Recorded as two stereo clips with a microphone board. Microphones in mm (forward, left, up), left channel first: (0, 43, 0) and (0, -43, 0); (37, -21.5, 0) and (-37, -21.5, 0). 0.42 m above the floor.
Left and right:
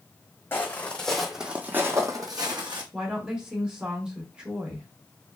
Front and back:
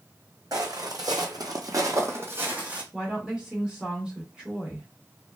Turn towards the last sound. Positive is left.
turn(degrees=-140)